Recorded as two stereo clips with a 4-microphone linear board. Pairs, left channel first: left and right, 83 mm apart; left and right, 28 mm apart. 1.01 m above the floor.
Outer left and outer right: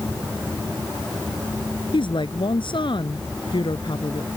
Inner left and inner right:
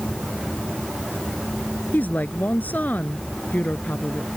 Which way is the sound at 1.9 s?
85° left.